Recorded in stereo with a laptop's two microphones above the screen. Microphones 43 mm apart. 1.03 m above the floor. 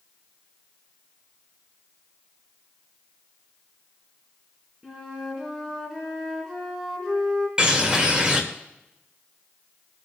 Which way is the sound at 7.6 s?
20° right (ahead or behind).